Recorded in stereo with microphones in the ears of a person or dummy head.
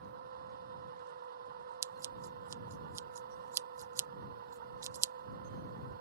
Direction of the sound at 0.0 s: 55° right (ahead or behind).